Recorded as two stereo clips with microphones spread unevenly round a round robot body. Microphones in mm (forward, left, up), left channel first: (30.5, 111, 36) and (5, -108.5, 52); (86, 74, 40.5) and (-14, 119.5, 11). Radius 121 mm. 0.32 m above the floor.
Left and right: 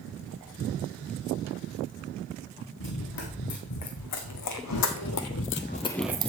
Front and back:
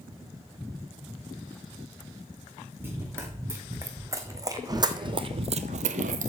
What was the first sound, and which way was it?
Running footsteps, 85° left.